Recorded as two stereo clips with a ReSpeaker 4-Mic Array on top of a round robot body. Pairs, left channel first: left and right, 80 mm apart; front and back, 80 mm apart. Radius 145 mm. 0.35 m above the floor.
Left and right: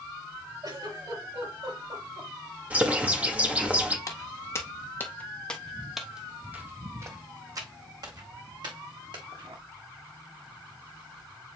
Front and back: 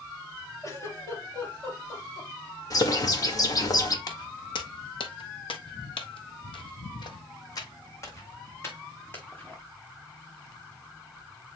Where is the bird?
25° right, 2 m.